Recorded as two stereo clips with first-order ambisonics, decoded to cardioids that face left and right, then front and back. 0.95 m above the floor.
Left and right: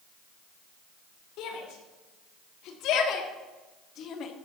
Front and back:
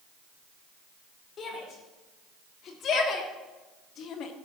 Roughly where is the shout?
Ahead left.